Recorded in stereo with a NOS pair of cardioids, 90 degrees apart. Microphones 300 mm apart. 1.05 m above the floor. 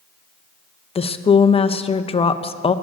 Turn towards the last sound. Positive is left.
turn(degrees=20)